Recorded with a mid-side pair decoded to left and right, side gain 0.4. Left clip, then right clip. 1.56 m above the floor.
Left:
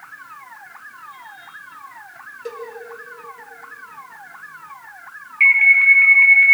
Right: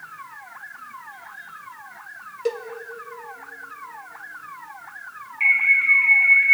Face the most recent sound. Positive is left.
turn(degrees=60)